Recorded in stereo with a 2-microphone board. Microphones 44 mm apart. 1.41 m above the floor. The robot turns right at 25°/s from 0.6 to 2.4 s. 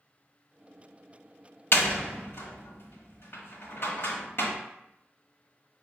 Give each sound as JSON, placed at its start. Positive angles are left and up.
{"t": 1.7, "sound": "a door slam", "side_deg": 55, "distance_m": 1.1}